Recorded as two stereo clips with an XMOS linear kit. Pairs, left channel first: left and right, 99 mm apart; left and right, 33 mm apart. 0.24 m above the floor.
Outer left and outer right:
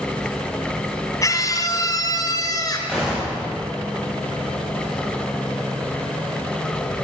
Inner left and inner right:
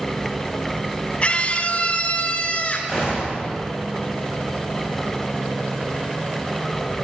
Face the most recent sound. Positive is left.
turn(degrees=0)  # may be behind; listen again after turning